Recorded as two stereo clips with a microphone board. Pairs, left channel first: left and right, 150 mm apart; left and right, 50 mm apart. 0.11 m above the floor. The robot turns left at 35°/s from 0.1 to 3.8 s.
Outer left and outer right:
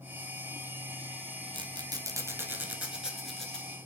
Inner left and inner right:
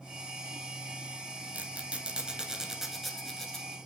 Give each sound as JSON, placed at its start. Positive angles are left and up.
{"t": 1.5, "sound": "a squeak", "side_deg": -30, "distance_m": 0.8}